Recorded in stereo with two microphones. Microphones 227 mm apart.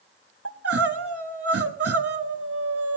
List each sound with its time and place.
0.5 s crying: 85° right, 0.8 m